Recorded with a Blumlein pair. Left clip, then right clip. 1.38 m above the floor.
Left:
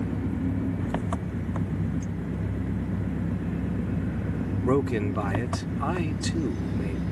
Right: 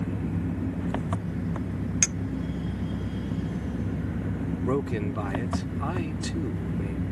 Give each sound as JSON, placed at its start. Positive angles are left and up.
{"t": 0.0, "sound": "an engine running", "azimuth_deg": 5}
{"t": 2.0, "sound": "a clink", "azimuth_deg": -45}
{"t": 4.6, "sound": "a man speaking", "azimuth_deg": 10}